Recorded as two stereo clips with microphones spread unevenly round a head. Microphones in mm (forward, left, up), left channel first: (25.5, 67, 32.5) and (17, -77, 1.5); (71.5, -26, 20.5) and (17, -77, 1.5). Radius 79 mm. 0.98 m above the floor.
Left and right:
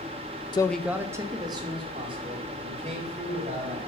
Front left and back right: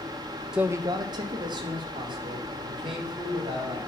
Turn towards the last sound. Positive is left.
turn(degrees=-145)